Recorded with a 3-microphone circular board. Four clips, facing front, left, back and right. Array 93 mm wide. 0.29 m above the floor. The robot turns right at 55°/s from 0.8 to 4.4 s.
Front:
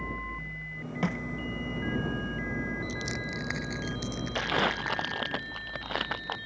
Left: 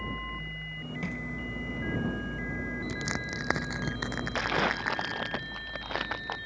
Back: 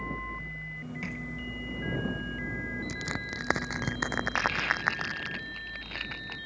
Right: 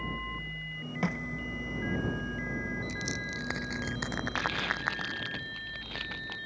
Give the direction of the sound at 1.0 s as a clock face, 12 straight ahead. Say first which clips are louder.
Right 5 dB, front 9 dB; 1 o'clock.